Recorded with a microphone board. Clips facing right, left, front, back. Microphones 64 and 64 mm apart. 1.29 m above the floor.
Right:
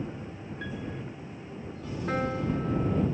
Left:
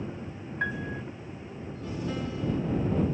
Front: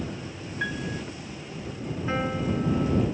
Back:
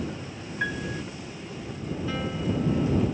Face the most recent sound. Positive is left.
turn(degrees=-55)